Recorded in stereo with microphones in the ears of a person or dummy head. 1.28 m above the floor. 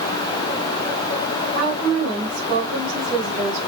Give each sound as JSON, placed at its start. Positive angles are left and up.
{"t": 1.6, "sound": "a woman speaking", "side_deg": -75, "distance_m": 6.5}